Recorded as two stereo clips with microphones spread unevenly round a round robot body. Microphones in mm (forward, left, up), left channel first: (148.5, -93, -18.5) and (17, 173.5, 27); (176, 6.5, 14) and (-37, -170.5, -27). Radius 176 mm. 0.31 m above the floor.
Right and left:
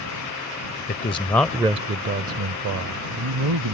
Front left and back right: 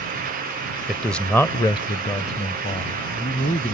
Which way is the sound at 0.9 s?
65° right.